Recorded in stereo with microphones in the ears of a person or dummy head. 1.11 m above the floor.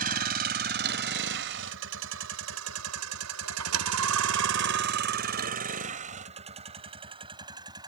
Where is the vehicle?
45° right (ahead or behind); by 7.9 s 25° right (ahead or behind).